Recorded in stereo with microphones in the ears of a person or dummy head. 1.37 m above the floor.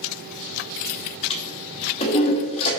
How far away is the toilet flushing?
About 1.2 m.